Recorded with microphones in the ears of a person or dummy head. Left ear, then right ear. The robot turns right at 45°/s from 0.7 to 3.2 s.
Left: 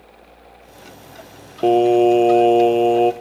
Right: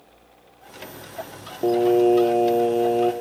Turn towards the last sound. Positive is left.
turn(degrees=145)